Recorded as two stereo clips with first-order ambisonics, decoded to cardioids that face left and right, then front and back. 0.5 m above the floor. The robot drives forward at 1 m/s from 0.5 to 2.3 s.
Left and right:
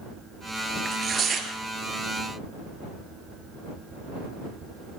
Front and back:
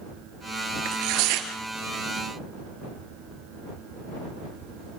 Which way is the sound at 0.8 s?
160° right.